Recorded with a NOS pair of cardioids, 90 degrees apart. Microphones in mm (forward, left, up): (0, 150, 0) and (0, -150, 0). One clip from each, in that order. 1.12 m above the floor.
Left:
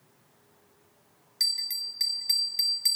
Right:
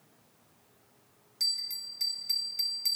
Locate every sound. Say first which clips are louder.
1.4 s a bell: left 4 dB; 35° left, 1.4 m